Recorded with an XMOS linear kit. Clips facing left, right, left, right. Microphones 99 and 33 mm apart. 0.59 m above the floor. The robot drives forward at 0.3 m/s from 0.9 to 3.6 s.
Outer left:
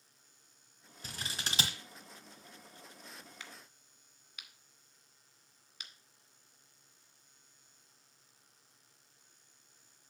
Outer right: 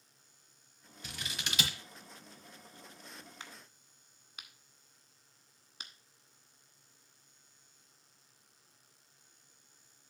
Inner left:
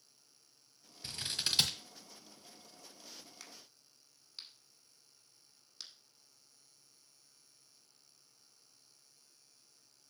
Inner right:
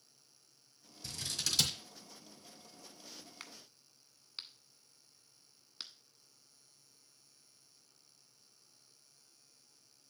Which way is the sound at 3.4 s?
30° right (ahead or behind).